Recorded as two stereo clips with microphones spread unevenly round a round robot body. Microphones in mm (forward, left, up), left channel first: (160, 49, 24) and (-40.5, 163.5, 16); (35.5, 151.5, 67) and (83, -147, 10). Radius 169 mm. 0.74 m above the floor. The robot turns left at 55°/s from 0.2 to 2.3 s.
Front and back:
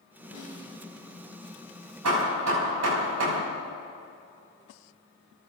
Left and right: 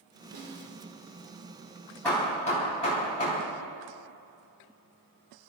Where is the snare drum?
70° right, 5 m; by 0.8 s 95° right, 5 m.